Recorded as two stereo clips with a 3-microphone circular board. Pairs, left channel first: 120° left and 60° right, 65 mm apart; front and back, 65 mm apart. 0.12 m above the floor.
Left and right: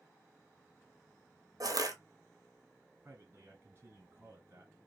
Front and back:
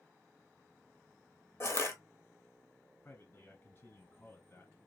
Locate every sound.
1.6 s crushing: 45° right, 0.7 m
3.0 s a man speaking: 35° right, 1.9 m